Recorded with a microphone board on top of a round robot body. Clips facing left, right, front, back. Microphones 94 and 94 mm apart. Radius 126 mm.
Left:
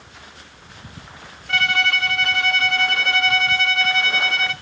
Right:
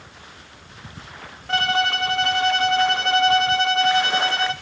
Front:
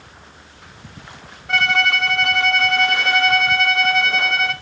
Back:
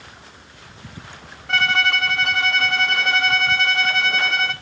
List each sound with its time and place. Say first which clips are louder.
1.5 s a violin: right 1 dB, front 1 dB; 85° right, 1.1 m